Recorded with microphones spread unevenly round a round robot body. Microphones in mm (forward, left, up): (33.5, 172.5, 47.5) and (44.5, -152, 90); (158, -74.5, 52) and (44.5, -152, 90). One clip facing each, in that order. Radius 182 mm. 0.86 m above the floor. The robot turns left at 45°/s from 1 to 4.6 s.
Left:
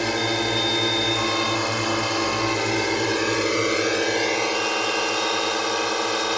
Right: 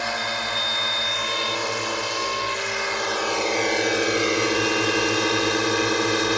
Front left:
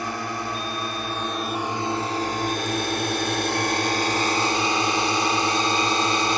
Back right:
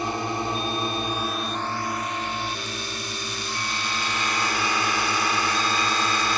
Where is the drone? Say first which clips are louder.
Left 8 dB, back right 2 dB; 135° left; by 6.4 s 25° right.